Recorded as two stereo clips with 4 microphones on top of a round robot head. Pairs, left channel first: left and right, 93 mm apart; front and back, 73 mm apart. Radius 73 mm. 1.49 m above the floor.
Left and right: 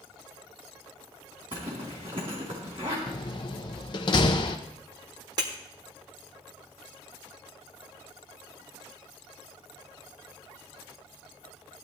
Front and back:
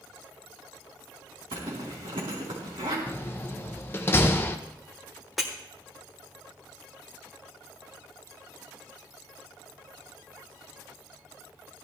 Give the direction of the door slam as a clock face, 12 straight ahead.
10 o'clock.